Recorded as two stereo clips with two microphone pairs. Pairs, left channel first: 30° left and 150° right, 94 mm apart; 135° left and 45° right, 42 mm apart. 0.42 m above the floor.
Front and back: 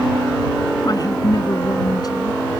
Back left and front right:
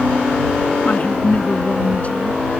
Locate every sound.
0.8 s a woman speaking: 75° left